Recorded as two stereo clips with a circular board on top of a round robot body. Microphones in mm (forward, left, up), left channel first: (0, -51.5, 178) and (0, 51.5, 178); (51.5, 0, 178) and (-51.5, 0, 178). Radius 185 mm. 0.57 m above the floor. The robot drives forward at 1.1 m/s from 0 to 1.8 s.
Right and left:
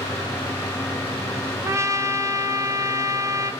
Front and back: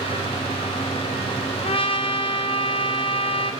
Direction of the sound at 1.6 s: 25° left.